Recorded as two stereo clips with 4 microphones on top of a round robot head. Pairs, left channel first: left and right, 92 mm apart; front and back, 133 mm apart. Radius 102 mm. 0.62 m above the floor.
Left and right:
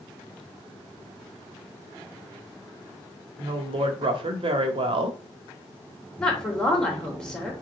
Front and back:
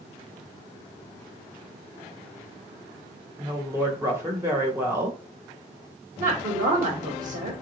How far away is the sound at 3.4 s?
About 2 m.